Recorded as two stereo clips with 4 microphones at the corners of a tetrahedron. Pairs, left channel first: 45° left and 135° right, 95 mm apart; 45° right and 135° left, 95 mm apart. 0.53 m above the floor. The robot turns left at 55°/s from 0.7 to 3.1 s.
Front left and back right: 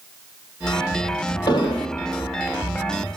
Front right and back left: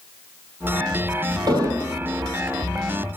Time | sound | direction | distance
1.5 | an explosion | 90° left | 2.5 m